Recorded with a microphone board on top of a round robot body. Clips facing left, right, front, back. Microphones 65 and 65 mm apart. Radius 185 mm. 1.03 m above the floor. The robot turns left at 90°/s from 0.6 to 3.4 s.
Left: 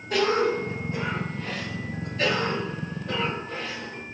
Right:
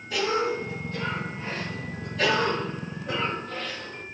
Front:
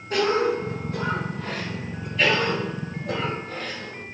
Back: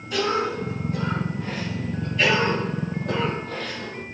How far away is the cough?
About 5 m.